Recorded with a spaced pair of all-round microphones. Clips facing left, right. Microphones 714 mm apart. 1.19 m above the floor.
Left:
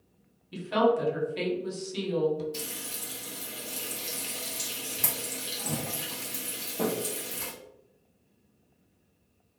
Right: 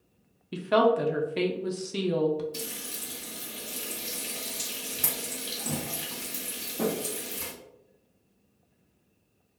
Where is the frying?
Centre (ahead or behind), 0.6 m.